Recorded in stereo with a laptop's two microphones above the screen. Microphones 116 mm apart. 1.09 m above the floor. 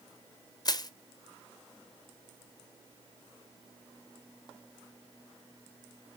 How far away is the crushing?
About 0.7 m.